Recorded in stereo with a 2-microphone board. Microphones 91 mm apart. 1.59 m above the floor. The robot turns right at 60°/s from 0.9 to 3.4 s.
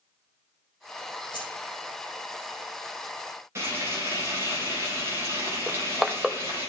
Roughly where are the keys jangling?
Left.